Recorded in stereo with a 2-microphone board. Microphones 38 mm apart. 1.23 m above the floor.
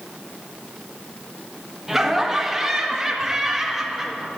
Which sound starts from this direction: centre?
Laughter, at 1.9 s.